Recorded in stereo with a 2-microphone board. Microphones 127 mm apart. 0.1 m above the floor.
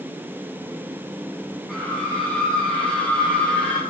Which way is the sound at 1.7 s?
Centre (ahead or behind).